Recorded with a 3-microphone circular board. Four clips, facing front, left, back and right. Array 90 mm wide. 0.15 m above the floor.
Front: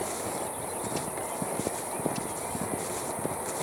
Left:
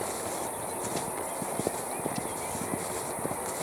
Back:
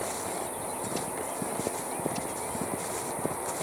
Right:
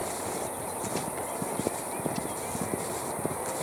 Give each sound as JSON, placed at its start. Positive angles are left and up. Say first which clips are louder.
{"t": 0.0, "sound": "an insect", "louder": "right 1 dB, front 1 dB", "azimuth_deg": -55, "distance_m": 5.0}